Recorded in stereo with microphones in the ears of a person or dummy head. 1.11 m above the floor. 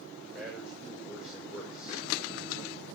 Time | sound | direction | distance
0.3 | a man speaking | centre (ahead or behind) | 4 m